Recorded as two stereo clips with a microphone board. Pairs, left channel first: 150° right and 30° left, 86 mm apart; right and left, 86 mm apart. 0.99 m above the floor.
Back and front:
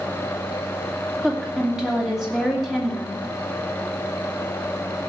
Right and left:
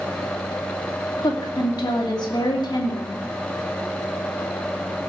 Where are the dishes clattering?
No dishes clattering in this recording.